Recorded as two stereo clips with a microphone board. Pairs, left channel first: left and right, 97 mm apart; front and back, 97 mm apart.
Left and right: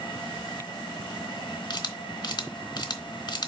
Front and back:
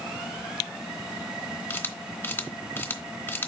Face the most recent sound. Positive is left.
turn(degrees=65)